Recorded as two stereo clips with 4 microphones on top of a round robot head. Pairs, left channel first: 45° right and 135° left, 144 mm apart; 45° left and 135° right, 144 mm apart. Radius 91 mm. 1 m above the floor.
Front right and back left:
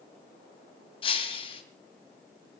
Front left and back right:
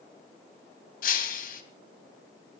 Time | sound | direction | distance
1.0 | breaking glass | 10° left | 2.5 m